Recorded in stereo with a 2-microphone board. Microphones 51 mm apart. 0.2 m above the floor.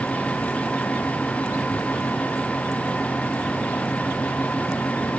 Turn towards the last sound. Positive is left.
No sound to turn to.